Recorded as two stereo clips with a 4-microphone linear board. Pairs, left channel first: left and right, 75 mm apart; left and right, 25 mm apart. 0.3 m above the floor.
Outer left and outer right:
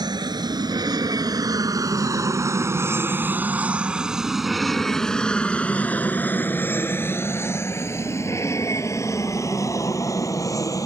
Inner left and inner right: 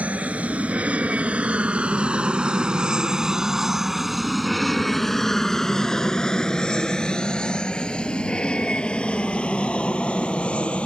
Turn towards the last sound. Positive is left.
turn(degrees=45)  # may be behind; listen again after turning